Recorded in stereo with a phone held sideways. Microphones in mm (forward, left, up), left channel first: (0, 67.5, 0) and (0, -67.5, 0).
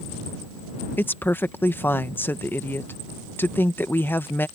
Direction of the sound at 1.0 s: 15° left (ahead or behind).